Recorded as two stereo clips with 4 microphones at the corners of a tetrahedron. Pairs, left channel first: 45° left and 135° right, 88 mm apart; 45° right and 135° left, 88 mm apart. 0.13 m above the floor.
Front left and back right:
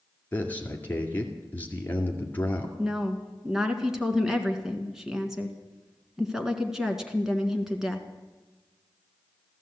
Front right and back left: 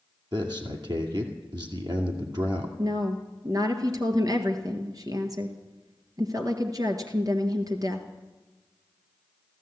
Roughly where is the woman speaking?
Behind left.